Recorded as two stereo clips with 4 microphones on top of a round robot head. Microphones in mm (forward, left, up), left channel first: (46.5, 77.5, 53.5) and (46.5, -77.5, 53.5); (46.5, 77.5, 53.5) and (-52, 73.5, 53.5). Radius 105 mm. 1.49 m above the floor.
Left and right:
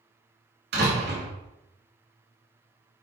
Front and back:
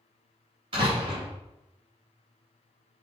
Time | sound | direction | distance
0.7 | a door slam | 120° right | 2.5 m